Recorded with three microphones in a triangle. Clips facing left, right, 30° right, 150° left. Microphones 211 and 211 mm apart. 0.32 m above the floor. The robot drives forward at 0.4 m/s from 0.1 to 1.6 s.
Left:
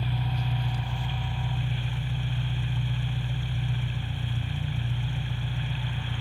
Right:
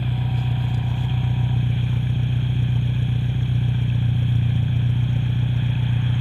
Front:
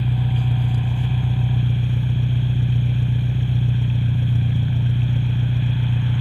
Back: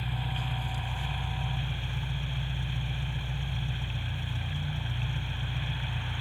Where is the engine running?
50° right, 2.5 m; by 6.2 s 60° right, 1.9 m.